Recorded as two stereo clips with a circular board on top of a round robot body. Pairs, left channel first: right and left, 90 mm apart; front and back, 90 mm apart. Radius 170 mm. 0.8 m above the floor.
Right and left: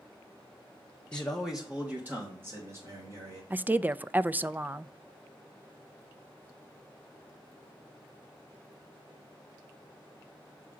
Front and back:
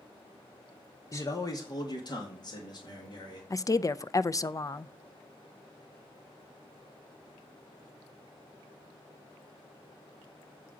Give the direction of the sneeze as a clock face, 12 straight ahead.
No sneeze in this recording.